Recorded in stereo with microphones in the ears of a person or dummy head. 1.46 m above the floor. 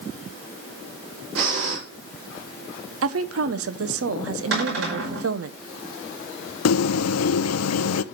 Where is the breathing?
60° right (ahead or behind), 5 m.